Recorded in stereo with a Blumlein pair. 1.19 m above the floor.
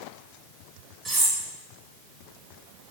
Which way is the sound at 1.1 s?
15° right.